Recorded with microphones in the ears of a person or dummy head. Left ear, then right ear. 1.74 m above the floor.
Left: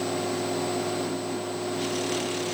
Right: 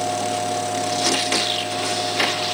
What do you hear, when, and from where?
0.0 s a fan: 65° right (ahead or behind), 7 m